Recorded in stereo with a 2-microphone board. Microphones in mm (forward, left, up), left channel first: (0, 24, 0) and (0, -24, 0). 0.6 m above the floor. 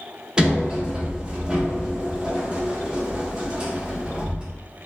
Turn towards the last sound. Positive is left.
turn(degrees=-20)  # may be behind; listen again after turning